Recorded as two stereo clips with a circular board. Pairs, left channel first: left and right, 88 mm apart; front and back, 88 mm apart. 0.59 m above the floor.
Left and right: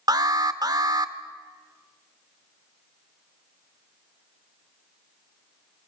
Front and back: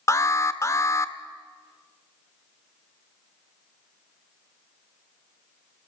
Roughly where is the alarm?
Ahead right.